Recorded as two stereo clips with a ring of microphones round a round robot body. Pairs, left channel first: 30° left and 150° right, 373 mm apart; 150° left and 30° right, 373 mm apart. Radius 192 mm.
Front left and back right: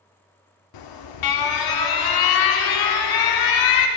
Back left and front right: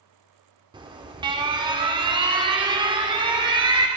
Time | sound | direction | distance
0.7 | an alarm | 45° left | 0.8 m